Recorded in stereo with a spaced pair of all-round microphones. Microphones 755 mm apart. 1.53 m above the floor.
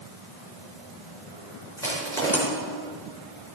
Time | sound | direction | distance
1.8 | crushing | 5° left (ahead or behind) | 4.5 m